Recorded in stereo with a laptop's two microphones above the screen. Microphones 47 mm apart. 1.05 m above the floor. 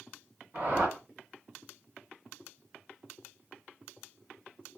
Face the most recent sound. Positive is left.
turn(degrees=-55)  # may be behind; listen again after turning